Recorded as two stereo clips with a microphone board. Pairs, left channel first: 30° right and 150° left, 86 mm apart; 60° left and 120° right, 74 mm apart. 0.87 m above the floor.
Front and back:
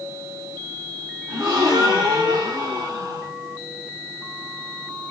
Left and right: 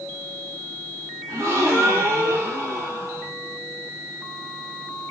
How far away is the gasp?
About 1.9 m.